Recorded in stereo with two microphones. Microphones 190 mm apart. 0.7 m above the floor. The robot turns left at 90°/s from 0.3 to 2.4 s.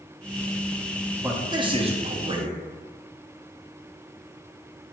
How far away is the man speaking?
About 0.5 m.